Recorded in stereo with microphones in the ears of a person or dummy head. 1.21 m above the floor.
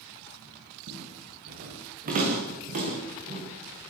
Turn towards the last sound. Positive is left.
turn(degrees=-35)  # may be behind; listen again after turning